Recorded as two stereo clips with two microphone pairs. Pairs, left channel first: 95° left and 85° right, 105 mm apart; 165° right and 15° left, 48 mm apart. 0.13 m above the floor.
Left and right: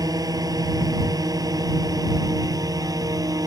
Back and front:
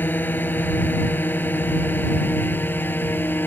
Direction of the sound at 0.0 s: 130° right.